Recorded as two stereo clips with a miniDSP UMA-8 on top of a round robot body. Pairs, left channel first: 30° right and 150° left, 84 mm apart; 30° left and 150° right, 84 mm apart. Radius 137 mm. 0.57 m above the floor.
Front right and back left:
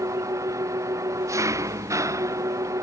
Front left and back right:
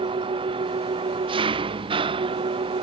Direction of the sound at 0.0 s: 155° right.